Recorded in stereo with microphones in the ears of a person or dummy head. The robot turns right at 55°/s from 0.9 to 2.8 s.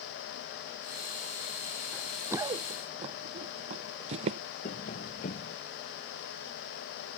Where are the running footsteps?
5° left (ahead or behind); by 4.4 s 30° right (ahead or behind).